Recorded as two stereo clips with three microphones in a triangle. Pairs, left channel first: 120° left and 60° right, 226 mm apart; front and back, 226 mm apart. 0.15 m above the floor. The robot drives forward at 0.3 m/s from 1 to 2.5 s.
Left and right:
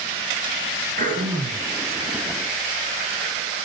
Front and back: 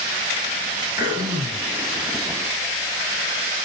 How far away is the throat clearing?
About 2.5 m.